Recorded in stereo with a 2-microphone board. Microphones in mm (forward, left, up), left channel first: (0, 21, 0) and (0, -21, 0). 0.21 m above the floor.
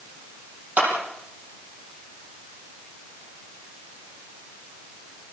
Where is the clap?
35° right (ahead or behind), 7.5 m.